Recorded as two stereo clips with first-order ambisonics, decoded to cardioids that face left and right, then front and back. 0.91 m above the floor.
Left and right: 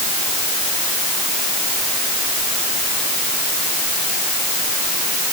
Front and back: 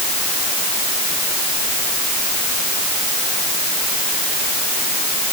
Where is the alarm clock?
No alarm clock in this recording.